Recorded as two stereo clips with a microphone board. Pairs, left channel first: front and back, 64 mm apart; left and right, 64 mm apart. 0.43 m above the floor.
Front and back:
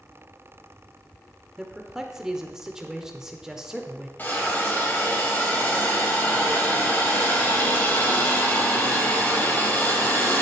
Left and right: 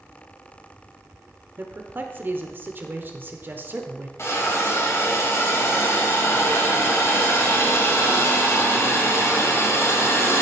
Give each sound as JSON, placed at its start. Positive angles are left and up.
{"t": 1.6, "sound": "a man speaking", "azimuth_deg": -105, "distance_m": 1.1}
{"t": 4.2, "sound": "a hiss", "azimuth_deg": 55, "distance_m": 2.5}